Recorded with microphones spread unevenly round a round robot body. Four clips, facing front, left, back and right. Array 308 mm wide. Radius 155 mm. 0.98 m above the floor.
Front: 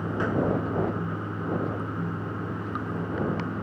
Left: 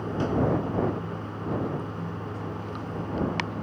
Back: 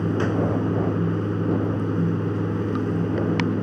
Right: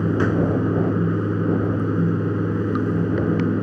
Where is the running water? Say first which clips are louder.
Right 6 dB, back 4 dB; 120° right.